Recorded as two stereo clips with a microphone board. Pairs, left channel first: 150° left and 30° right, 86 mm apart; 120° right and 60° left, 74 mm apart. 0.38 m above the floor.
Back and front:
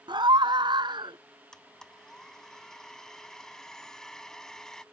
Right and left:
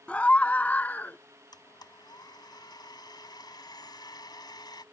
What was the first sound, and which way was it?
A scream, 45° right.